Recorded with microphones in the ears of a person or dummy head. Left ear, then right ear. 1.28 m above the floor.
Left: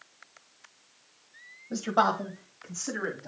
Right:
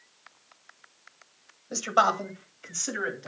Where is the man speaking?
65° right (ahead or behind), 1.1 m; by 3.3 s 85° right, 2.5 m.